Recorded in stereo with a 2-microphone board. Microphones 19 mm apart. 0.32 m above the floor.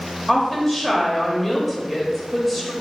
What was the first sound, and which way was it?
A woman speaking, 15° left (ahead or behind).